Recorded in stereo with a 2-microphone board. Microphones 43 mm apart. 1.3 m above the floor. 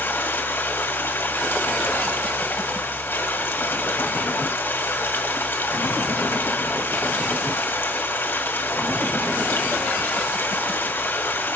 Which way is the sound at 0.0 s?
55° left (ahead or behind).